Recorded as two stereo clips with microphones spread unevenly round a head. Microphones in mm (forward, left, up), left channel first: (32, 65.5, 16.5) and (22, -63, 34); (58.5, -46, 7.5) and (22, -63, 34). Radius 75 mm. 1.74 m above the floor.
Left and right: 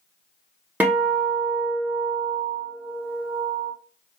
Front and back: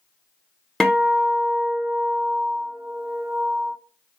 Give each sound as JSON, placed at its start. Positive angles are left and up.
{"t": 0.8, "sound": "a guitar", "azimuth_deg": -130, "distance_m": 0.7}